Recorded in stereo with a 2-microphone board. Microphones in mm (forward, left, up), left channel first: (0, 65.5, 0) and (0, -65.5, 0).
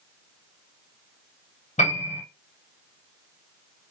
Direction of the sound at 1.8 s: 65° left (ahead or behind).